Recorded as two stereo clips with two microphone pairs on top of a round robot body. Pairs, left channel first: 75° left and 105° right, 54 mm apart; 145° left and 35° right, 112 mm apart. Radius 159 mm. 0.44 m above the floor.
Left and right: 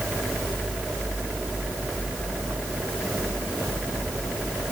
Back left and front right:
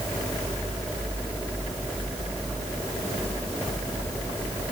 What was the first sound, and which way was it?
Only background noise.